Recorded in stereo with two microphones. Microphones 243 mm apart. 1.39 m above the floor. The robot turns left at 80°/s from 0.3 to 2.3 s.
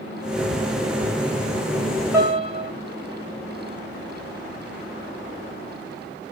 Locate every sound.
2.1 s a piano: 10° right (ahead or behind), 1.2 m; by 2.7 s 20° right (ahead or behind), 1.2 m